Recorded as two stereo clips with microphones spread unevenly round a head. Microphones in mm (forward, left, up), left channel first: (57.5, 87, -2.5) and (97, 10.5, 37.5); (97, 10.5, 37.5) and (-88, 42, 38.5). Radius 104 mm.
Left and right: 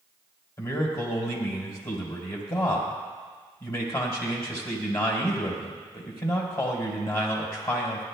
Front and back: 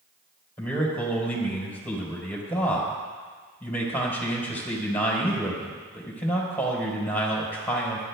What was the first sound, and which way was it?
A man speaking, 70° left.